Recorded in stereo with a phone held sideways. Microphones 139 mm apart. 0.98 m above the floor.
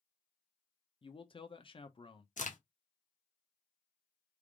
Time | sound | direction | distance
1.0 | a man speaking | 40° left (ahead or behind) | 0.7 m
2.4 | a crack | 65° left (ahead or behind) | 0.8 m